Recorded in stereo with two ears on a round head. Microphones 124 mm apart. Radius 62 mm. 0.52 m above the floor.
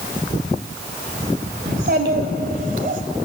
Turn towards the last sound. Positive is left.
turn(degrees=-60)  # may be behind; listen again after turning